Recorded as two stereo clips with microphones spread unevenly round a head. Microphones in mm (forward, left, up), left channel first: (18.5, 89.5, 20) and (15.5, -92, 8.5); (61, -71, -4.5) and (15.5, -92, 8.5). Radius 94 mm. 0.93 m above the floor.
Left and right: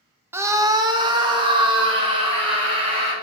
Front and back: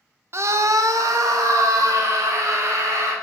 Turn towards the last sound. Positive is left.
turn(degrees=-155)